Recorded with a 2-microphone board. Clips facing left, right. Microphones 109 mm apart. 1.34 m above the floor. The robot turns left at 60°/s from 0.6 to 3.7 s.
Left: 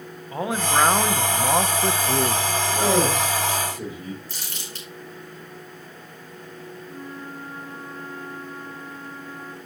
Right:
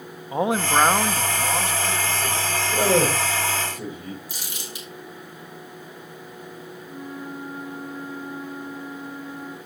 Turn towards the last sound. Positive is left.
turn(degrees=-5)  # may be behind; listen again after turning